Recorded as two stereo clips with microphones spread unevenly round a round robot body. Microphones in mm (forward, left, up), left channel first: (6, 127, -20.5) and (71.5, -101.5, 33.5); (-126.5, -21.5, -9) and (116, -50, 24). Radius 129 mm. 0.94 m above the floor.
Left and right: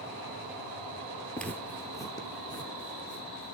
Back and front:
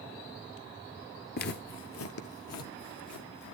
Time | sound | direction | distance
1.4 | footsteps | 150° right | 1.1 m